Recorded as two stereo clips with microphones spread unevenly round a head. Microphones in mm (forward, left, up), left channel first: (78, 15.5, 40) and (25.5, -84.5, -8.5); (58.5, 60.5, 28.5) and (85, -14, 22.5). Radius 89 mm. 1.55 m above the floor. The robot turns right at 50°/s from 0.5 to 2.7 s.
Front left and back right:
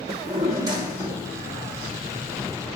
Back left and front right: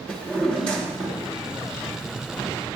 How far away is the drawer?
About 0.9 m.